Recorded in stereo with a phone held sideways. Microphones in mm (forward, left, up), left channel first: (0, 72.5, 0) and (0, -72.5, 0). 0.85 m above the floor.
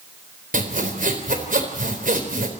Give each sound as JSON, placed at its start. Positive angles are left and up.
{"t": 0.5, "sound": "sawing", "side_deg": -70, "distance_m": 3.5}